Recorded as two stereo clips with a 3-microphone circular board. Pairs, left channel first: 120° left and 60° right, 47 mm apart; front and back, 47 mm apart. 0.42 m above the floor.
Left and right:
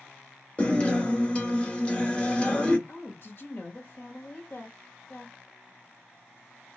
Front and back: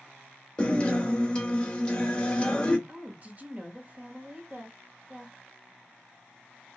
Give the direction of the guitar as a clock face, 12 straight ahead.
10 o'clock.